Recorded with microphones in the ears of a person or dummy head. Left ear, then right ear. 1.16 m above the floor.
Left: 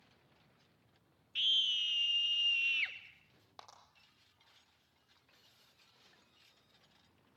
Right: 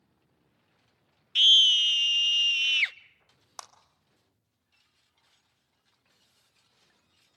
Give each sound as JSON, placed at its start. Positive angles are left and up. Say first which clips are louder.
{"t": 1.4, "sound": "a scream", "louder": "right 13 dB", "side_deg": -50, "distance_m": 0.9}
{"t": 3.6, "sound": "a clap", "louder": "right 10 dB", "side_deg": -50, "distance_m": 1.8}